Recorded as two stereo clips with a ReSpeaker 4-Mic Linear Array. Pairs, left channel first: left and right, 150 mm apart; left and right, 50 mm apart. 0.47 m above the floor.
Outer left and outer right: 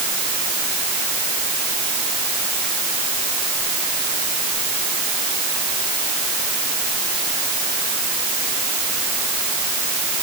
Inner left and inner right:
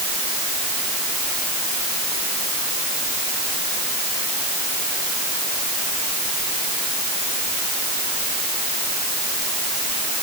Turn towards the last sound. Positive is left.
No sound to turn to.